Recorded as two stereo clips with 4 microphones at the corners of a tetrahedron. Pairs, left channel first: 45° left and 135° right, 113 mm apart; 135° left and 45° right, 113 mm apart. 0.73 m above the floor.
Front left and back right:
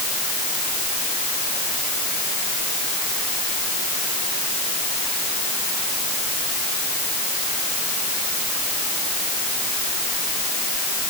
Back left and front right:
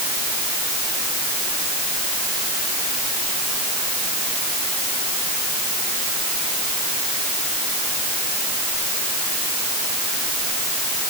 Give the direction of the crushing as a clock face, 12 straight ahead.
No crushing in this recording.